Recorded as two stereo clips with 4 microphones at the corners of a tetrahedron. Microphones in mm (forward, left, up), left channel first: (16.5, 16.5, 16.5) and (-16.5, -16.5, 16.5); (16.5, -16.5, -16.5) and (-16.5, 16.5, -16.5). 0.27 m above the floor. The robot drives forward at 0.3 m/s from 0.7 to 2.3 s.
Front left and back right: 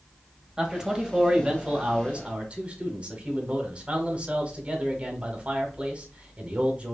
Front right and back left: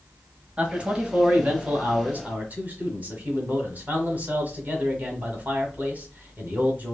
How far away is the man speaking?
About 1.0 m.